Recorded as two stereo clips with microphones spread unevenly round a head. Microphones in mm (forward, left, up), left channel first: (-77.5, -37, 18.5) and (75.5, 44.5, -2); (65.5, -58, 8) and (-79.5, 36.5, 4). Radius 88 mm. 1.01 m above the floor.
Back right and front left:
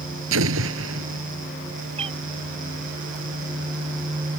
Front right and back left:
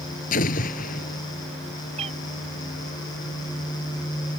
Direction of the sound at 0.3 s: 15° left.